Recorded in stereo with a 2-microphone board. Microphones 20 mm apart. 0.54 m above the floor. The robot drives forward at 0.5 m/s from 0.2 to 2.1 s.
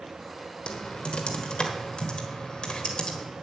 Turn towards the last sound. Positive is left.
turn(degrees=45)  # may be behind; listen again after turning